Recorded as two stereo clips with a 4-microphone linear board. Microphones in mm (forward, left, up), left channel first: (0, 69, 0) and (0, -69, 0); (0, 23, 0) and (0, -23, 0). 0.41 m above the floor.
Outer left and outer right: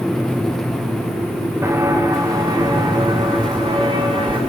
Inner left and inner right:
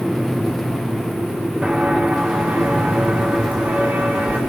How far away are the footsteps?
About 2 m.